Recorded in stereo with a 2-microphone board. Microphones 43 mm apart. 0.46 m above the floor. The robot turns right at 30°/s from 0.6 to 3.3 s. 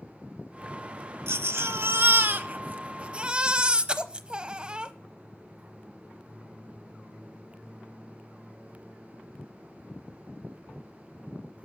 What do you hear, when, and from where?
1.3 s a baby crying: 85° right, 0.9 m; by 4.9 s 25° right, 0.9 m